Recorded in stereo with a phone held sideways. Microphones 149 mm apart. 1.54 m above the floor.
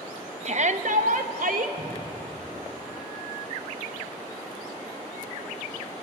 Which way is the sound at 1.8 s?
10° right (ahead or behind).